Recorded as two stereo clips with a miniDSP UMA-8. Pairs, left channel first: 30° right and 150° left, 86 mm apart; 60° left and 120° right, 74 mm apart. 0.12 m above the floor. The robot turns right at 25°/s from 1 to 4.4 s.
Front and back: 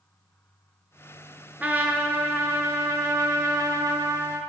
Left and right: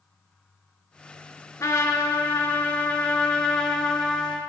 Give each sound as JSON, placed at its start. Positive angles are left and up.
{"t": 1.6, "sound": "a trumpet", "azimuth_deg": 85, "distance_m": 0.7}